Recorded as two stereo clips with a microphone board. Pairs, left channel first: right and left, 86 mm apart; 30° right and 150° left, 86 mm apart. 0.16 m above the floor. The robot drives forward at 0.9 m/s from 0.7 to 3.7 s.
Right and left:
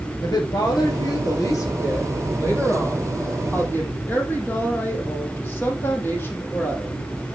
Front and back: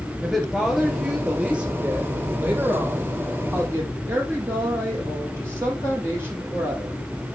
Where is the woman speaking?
120° right, 2.5 m; by 7.0 s 150° right, 4.5 m.